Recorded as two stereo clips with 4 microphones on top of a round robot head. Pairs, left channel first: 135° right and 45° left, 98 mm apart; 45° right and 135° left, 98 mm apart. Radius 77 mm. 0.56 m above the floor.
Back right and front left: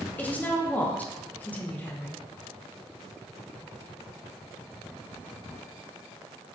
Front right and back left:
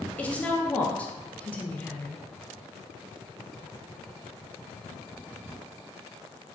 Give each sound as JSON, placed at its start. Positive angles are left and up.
{"t": 0.2, "sound": "a woman speaking", "azimuth_deg": -95, "distance_m": 0.6}